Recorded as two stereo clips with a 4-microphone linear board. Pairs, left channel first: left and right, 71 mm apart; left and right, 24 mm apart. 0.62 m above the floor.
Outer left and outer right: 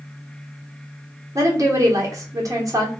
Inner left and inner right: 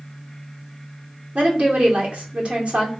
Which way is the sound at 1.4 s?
45° right (ahead or behind).